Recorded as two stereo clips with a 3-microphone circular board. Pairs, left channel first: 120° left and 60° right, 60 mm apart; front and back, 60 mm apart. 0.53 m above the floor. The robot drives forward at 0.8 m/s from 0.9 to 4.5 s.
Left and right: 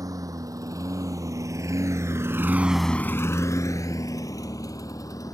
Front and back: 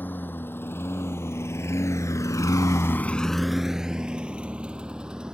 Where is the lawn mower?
55° right; by 5.3 s 105° left.